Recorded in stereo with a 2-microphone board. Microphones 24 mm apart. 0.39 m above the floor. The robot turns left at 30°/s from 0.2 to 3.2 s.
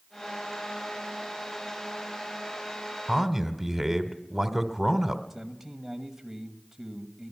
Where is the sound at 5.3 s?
10° right (ahead or behind), 2.0 m.